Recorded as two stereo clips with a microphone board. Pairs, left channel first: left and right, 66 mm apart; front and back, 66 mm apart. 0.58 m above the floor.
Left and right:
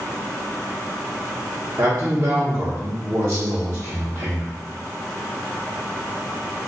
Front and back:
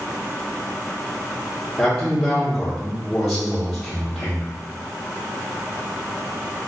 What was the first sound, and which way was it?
A man speaking, 65° right.